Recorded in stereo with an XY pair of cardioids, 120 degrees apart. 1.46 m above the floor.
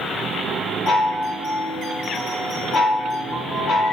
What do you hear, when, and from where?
0.9 s a chime: 65° left, 1.1 m